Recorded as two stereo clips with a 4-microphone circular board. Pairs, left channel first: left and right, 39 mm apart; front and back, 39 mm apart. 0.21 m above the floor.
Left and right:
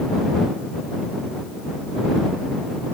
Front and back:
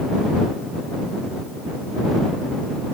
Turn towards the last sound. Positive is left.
No sound to turn to.